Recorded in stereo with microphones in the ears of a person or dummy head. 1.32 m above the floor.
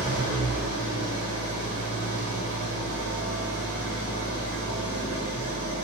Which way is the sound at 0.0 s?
60° right (ahead or behind).